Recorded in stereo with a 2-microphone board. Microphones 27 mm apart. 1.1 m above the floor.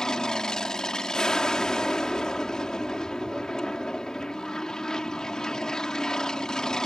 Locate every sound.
0.0 s an aircraft: 25° left (ahead or behind)